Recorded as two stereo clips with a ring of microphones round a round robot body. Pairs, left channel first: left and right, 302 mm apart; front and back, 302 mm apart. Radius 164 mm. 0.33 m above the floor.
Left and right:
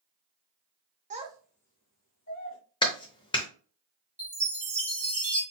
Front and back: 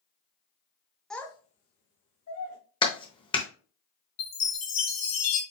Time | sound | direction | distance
1.1 | a child speaking | 90° right | 0.6 m
2.8 | a clap | 45° left | 0.7 m
4.2 | a chime | 20° right | 2 m